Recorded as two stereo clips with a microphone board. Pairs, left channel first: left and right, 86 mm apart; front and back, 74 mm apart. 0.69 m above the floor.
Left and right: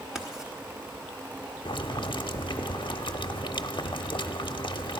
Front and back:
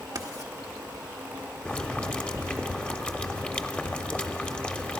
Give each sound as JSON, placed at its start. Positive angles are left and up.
{"t": 0.1, "sound": "writing", "azimuth_deg": -170, "distance_m": 1.4}
{"t": 1.6, "sound": "boiling", "azimuth_deg": 75, "distance_m": 0.7}